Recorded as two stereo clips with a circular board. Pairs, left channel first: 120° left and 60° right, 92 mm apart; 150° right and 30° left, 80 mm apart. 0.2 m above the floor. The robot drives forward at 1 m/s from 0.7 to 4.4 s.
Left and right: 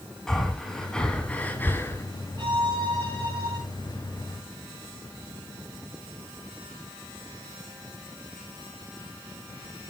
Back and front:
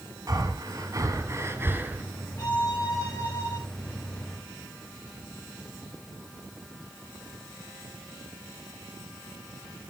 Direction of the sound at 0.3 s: 35° left.